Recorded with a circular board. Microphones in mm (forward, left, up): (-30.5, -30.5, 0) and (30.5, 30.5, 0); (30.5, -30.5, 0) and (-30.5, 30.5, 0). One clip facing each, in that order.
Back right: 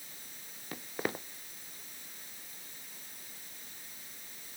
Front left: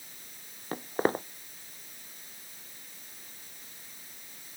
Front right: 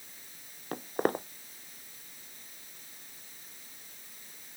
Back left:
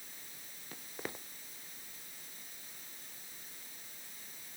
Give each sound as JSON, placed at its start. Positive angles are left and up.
{"t": 0.7, "sound": "footsteps", "azimuth_deg": -5}